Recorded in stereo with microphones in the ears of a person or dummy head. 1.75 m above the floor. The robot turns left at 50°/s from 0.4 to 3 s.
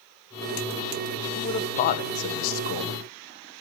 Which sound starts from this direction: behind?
A man speaking, at 1.4 s.